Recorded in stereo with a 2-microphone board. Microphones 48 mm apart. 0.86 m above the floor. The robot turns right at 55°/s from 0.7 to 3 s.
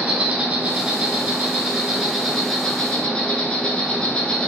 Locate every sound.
0.0 s an insect: 100° right, 0.9 m; by 4.5 s 30° left, 0.9 m